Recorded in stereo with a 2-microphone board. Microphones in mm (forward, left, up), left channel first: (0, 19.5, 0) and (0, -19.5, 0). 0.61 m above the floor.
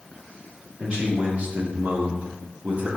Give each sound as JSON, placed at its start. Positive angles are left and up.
{"t": 0.8, "sound": "a man speaking", "side_deg": -25, "distance_m": 1.4}